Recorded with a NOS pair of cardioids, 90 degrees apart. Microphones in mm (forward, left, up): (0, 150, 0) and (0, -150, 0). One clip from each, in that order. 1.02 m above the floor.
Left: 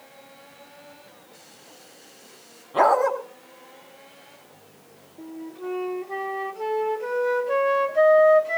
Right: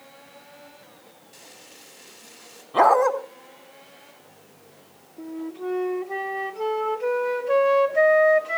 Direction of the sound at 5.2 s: 25° right.